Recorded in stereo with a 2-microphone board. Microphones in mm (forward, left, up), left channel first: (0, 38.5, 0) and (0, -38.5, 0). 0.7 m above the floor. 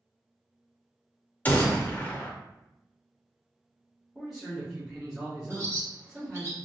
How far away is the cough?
I don't hear a cough.